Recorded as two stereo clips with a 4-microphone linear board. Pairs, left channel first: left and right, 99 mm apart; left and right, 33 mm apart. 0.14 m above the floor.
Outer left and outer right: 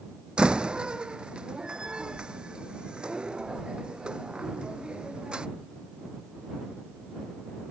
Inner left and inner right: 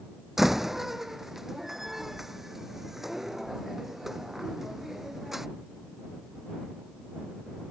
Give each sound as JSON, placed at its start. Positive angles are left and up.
{"t": 0.4, "sound": "a door slam", "side_deg": -10}